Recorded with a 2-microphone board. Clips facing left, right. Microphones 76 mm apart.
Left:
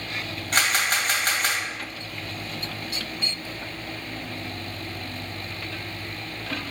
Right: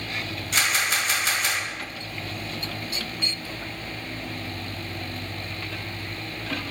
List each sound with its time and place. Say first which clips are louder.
0.5 s a camera shutter: left 2 dB; 50° left (ahead or behind), 1.8 m